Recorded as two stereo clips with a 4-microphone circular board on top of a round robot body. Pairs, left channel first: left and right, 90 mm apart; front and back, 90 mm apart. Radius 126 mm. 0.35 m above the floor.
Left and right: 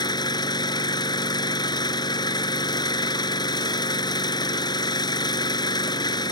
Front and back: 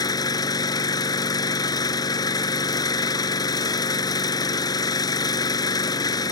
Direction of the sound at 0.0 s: 45° left.